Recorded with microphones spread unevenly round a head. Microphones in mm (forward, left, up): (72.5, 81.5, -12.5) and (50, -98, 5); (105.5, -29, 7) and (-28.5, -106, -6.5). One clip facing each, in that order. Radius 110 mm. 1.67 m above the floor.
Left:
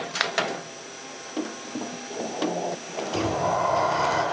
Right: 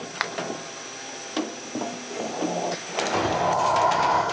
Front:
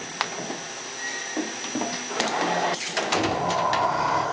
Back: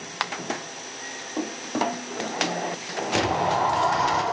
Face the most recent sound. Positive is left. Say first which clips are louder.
# right 1 dB, back 2 dB
turn(degrees=165)